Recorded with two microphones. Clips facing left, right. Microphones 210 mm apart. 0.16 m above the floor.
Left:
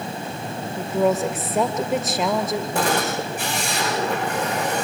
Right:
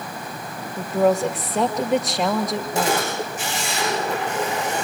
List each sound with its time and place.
0.8 s a woman speaking: centre (ahead or behind), 2.5 m
2.8 s a camera shutter: 55° left (ahead or behind), 8 m